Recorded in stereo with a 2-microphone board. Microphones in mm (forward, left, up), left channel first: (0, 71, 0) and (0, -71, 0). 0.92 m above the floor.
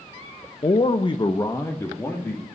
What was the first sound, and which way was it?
A man speaking, 35° left (ahead or behind).